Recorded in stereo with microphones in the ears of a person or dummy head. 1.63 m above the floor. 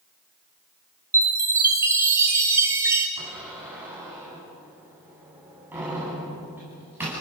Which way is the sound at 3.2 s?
15° right (ahead or behind).